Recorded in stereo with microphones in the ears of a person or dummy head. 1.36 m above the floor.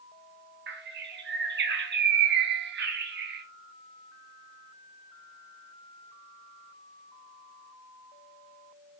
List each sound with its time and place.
0.7 s a bird: 50° right (ahead or behind), 0.8 m